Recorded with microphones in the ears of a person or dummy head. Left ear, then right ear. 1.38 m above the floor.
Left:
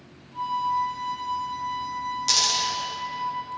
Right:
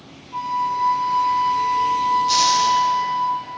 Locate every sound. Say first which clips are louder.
0.3 s a flute: right 3 dB; 40° right (ahead or behind), 2 m
2.3 s a dropped coin: right 2 dB; 55° left (ahead or behind), 2.5 m